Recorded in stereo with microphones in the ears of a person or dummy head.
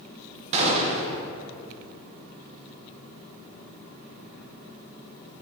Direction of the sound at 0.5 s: 35° right (ahead or behind).